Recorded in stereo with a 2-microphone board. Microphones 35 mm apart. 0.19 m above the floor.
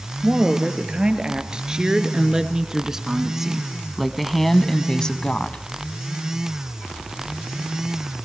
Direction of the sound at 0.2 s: 25° right (ahead or behind).